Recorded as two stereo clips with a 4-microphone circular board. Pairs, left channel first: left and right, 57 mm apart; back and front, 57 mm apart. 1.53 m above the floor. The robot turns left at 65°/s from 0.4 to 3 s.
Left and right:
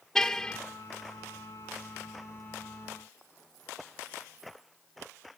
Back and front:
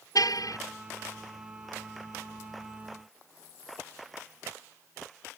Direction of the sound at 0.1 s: 170° left.